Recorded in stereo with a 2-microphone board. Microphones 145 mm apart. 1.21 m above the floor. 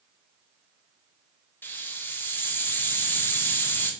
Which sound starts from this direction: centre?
A hiss, at 1.6 s.